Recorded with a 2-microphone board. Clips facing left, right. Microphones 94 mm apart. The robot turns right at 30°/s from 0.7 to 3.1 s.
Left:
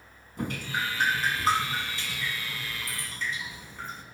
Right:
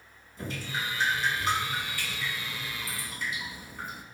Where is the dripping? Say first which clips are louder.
Left 4 dB; 120° left, 2.5 m; by 4.0 s 170° right, 2.5 m.